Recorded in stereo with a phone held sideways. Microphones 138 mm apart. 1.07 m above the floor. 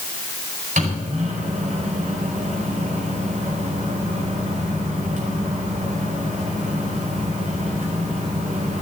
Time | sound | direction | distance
0.8 | a microwave | 70° right (ahead or behind) | 4.5 m